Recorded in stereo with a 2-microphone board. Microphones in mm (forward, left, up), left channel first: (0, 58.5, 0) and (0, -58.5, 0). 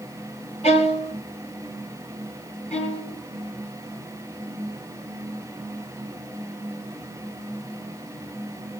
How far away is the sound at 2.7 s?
About 6.5 m.